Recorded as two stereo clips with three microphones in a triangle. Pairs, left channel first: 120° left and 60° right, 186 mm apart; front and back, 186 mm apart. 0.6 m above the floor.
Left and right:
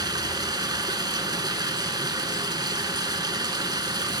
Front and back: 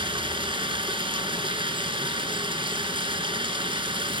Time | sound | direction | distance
0.0 | running water | 125° right | 0.8 m